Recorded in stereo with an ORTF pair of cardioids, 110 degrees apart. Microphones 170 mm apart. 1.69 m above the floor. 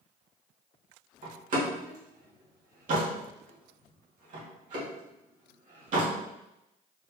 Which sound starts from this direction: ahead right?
A door slam, at 1.2 s.